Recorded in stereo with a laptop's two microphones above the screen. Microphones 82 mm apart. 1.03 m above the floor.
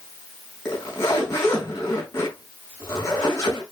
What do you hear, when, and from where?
0.7 s a zipper: 35° left (ahead or behind), 4.5 m